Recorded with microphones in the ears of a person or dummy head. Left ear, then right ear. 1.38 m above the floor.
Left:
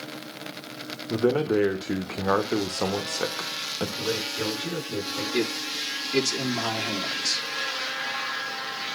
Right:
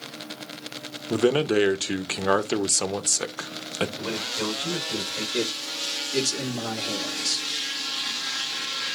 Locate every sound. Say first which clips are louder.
1.1 s a man speaking: right 2 dB; 70° right (ahead or behind), 1.0 m
4.0 s a man speaking: left 1 dB; 25° right (ahead or behind), 6.5 m
5.3 s a man speaking: left 2 dB; 35° left (ahead or behind), 1.6 m